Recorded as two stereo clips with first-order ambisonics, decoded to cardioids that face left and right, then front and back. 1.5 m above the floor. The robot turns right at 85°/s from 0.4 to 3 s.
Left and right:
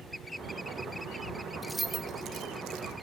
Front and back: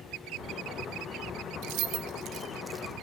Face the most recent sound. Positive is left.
turn(degrees=-70)